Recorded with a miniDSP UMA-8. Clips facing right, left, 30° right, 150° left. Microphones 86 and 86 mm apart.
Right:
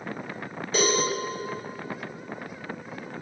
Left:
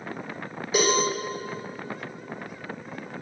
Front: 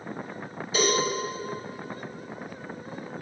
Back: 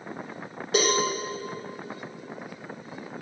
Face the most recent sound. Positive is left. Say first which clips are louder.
# left 1 dB, back 1 dB
turn(degrees=170)